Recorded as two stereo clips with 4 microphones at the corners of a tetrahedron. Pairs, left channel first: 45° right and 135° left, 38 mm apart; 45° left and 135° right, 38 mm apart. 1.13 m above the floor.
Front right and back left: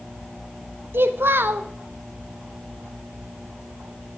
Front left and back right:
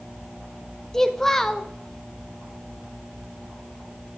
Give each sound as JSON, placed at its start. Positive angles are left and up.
{"t": 0.9, "sound": "a child speaking", "azimuth_deg": 125, "distance_m": 0.8}